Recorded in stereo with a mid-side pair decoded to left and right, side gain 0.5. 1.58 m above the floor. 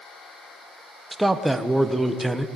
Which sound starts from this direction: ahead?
A man speaking, at 1.1 s.